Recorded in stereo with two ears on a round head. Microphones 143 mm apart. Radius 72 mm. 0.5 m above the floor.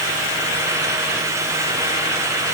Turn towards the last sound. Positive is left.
No sound to turn to.